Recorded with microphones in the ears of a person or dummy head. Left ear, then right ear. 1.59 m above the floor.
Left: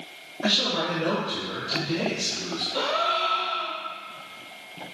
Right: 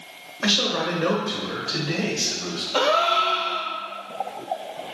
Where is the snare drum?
No snare drum in this recording.